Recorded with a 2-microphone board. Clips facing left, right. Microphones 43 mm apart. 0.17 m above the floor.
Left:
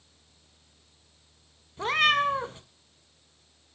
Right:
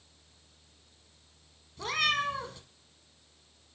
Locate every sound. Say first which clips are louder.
1.8 s a cat meowing: left 6 dB; 30° left (ahead or behind), 0.6 m